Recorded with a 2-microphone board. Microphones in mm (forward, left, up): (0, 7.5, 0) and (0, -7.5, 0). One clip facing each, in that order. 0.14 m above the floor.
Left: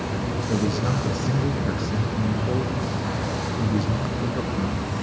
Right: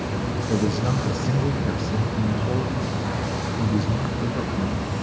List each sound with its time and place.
0.5 s a man speaking: centre (ahead or behind), 2.5 m